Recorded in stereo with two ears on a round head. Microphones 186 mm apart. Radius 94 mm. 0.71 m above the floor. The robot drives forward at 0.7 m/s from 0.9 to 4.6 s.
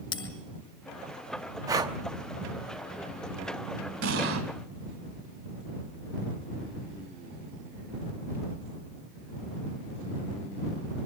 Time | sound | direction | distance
0.1 | a bell | 25° left (ahead or behind) | 3 m
1.7 | breathing | 15° right (ahead or behind) | 0.9 m
4.0 | an explosion | 60° right (ahead or behind) | 1.9 m